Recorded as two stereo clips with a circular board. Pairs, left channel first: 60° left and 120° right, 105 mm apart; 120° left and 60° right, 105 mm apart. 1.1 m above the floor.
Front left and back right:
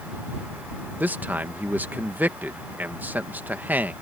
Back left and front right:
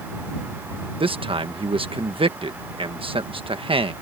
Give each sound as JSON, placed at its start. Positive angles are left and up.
{"t": 1.0, "sound": "a man speaking", "azimuth_deg": -50}